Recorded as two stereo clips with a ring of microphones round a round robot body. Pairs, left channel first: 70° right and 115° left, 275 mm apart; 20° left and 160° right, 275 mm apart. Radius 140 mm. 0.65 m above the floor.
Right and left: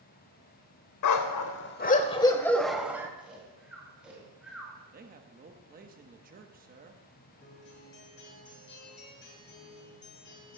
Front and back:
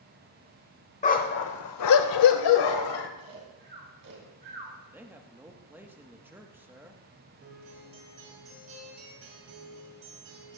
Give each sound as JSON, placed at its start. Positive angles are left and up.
{"t": 1.0, "sound": "a dog barking", "azimuth_deg": -45, "distance_m": 0.9}
{"t": 3.2, "sound": "snoring", "azimuth_deg": -160, "distance_m": 3.5}
{"t": 4.9, "sound": "a man speaking", "azimuth_deg": 125, "distance_m": 1.0}
{"t": 7.4, "sound": "a guitar", "azimuth_deg": -115, "distance_m": 2.5}